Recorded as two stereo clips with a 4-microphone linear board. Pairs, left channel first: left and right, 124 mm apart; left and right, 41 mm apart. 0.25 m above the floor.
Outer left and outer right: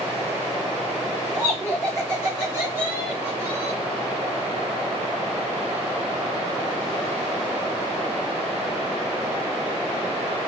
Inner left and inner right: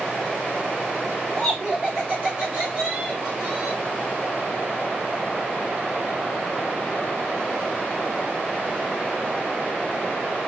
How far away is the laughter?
About 1.6 m.